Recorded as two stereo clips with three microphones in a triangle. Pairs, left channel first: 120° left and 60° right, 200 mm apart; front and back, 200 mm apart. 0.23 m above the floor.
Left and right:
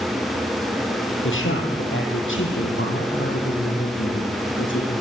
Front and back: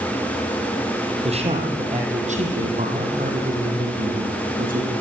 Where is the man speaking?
120° left, 6.5 m; by 4.9 s 135° left, 9.5 m.